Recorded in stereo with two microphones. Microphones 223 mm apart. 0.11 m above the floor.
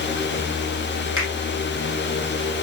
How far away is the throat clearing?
I don't hear throat clearing.